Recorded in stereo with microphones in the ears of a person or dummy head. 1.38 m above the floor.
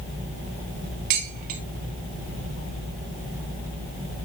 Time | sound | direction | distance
1.1 | dishes clattering | 50° right (ahead or behind) | 1.6 m